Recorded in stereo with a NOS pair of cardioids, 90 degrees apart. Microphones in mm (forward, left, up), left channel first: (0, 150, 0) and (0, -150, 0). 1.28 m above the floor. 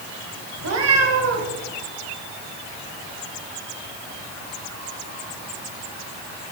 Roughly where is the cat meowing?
Ahead right.